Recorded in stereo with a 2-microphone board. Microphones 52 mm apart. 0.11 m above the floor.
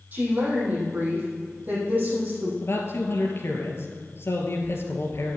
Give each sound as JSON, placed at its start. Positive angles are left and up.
{"t": 0.1, "sound": "a woman speaking", "side_deg": -35, "distance_m": 5.0}
{"t": 2.6, "sound": "a man speaking", "side_deg": 55, "distance_m": 2.5}